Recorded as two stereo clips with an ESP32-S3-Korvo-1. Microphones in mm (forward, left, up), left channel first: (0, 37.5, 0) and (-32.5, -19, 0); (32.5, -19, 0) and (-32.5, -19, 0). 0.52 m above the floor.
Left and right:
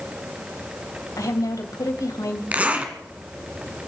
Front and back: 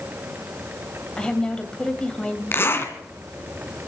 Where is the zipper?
55° right, 2.5 m.